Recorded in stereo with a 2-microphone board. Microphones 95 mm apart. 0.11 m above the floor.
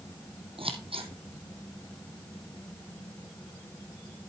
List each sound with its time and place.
0.6 s scissors: 70° right (ahead or behind), 1.5 m